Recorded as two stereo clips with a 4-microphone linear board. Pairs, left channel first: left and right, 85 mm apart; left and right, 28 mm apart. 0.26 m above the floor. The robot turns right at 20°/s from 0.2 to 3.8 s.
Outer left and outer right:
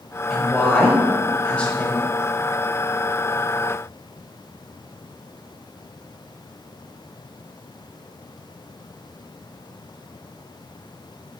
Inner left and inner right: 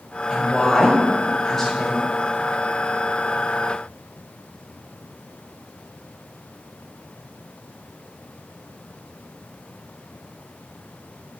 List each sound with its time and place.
0.3 s a woman speaking: 5° left (ahead or behind), 1.4 m; by 2.1 s 20° left (ahead or behind), 1.4 m